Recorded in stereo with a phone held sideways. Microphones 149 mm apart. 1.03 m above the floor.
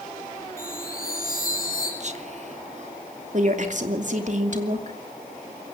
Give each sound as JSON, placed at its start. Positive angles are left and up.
{"t": 0.6, "sound": "a chime", "side_deg": 75, "distance_m": 6.5}
{"t": 2.0, "sound": "whispering", "side_deg": -50, "distance_m": 1.4}
{"t": 3.3, "sound": "a woman speaking", "side_deg": -55, "distance_m": 2.5}